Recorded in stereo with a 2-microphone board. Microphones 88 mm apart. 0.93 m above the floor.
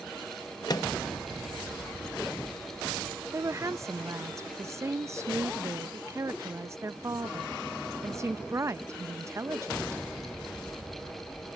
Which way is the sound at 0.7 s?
50° left (ahead or behind).